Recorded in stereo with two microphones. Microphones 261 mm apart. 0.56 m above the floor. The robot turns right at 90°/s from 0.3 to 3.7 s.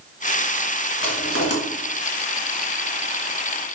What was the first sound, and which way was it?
Crushing, 90° left.